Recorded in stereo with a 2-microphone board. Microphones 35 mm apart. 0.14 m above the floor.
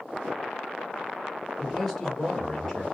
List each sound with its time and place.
1.6 s a man speaking: 10° left (ahead or behind), 3 m; by 2.8 s 15° left (ahead or behind), 3.5 m